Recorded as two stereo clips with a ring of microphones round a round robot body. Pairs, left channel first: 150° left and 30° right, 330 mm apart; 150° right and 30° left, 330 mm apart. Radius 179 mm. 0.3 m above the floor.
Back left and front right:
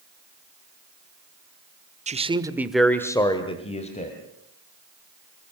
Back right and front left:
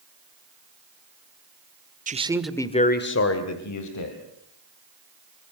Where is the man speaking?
5° left, 1.6 m; by 4.2 s 145° right, 3 m.